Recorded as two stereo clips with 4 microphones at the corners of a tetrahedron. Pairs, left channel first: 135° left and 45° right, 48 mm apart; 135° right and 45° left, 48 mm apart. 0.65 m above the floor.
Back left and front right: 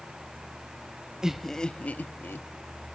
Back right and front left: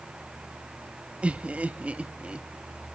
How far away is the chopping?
I don't hear chopping.